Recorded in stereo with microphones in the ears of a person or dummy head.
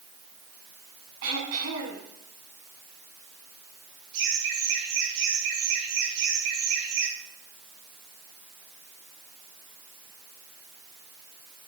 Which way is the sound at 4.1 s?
70° right (ahead or behind).